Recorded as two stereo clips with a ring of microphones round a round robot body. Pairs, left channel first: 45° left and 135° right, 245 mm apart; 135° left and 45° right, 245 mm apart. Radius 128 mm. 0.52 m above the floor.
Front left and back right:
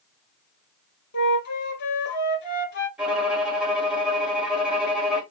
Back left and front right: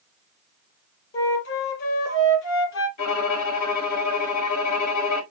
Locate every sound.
1.1 s a flute: 95° left, 1.1 m
3.0 s a violin: 140° left, 1.6 m